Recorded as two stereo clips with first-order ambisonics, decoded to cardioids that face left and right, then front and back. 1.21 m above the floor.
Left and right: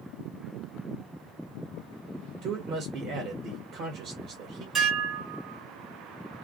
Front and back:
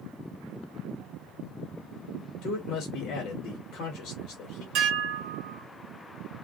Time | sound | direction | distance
2.4 | a man speaking | 50° right | 0.9 m
4.8 | dishes clattering | 160° right | 1.6 m